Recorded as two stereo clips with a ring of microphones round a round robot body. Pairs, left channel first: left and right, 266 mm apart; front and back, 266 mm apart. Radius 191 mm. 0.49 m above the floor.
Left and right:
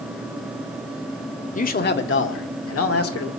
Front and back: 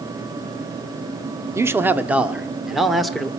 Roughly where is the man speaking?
Left.